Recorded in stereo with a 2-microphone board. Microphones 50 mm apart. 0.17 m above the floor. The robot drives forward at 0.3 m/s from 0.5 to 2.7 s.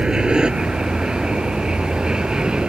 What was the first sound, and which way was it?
An aircraft, 15° right (ahead or behind).